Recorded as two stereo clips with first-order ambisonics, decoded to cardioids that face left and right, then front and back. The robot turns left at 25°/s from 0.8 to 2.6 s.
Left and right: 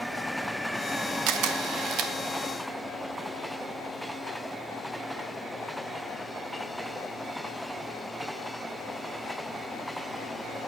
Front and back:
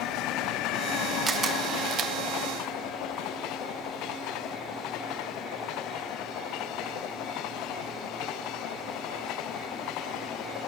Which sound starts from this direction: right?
A camera shutter, at 1.3 s.